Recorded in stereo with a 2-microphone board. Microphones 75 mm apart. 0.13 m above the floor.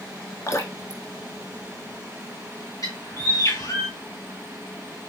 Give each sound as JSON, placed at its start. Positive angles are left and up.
{"t": 0.5, "sound": "dripping", "side_deg": 45, "distance_m": 0.8}
{"t": 2.8, "sound": "a bird", "side_deg": 50, "distance_m": 3.0}